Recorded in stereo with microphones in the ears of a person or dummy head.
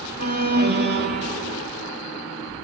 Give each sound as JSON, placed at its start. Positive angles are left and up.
{"t": 0.2, "sound": "an alarm", "side_deg": -45, "distance_m": 3.5}